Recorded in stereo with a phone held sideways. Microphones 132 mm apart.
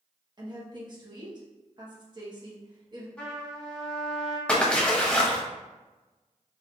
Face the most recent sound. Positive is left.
turn(degrees=10)  # may be behind; listen again after turning